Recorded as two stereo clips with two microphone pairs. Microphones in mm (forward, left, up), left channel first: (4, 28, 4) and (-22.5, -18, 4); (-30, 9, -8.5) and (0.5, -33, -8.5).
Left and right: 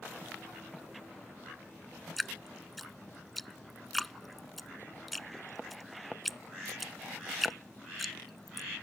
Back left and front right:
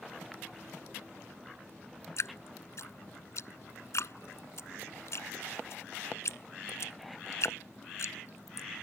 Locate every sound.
2.2 s dripping: 150° left